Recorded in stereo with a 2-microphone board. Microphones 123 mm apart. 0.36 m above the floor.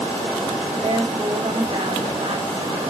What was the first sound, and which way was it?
A woman speaking, 50° right (ahead or behind).